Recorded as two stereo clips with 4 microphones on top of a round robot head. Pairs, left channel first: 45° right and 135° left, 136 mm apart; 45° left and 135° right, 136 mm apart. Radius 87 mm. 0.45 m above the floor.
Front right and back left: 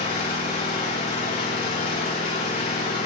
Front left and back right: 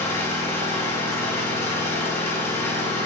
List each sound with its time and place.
0.0 s an engine running: 30° right, 7.5 m